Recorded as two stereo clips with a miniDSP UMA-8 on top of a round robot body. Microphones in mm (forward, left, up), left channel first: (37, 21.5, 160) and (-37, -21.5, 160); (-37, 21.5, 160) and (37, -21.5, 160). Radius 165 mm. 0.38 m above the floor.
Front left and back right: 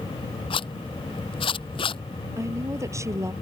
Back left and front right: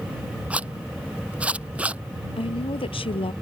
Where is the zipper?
45° left.